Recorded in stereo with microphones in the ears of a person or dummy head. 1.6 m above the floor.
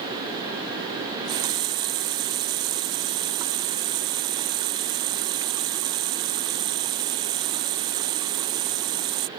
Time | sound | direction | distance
1.0 | a running tap | 25° right (ahead or behind) | ?